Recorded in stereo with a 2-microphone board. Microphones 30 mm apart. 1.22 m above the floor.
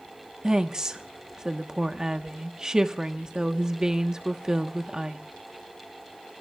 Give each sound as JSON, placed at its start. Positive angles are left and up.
{"t": 0.4, "sound": "a woman speaking", "side_deg": -20, "distance_m": 1.2}